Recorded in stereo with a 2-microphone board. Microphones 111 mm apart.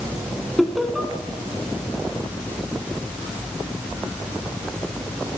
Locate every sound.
0.6 s laughter: centre (ahead or behind), 1.7 m